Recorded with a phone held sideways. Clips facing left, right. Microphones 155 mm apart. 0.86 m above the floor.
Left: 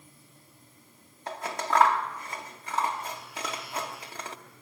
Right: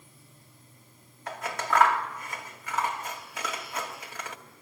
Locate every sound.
1.3 s scissors: 30° left (ahead or behind), 1.2 m